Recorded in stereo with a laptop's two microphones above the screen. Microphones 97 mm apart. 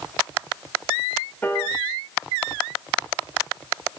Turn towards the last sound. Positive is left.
turn(degrees=20)  # may be behind; listen again after turning